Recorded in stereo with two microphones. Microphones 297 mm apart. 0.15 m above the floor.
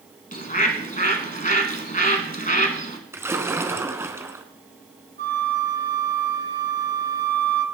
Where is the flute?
35° right (ahead or behind), 1.5 m.